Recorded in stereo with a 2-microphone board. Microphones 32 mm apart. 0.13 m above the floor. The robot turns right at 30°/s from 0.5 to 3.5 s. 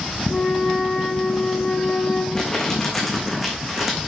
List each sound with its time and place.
0.3 s a flute: 25° left, 5.5 m; by 2.2 s 75° left, 5.5 m
2.4 s crumpling: 25° left (ahead or behind), 3 m; by 4.1 s 5° right (ahead or behind), 3 m